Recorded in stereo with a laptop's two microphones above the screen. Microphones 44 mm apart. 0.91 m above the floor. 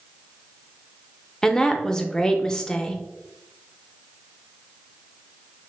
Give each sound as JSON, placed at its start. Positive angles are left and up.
{"t": 1.4, "sound": "a woman speaking", "side_deg": 15, "distance_m": 0.6}